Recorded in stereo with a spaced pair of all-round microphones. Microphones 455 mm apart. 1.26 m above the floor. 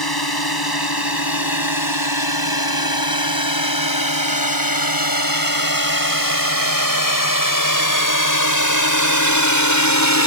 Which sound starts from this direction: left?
A drone, at 0.0 s.